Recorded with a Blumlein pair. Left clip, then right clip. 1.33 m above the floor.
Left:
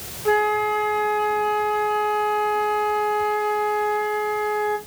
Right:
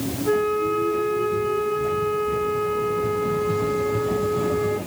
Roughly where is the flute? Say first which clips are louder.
Left 2 dB; ahead left.